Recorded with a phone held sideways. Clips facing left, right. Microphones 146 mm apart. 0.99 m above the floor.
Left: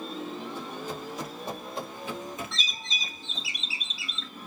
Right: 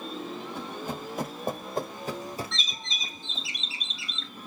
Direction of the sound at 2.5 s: Centre (ahead or behind).